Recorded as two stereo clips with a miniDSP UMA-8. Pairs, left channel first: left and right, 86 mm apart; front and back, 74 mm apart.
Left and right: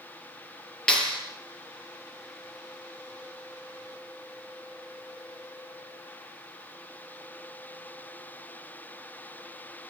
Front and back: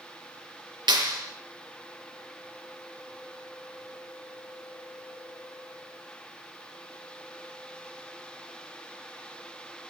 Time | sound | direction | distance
0.9 | a clap | 165° left | 5.5 m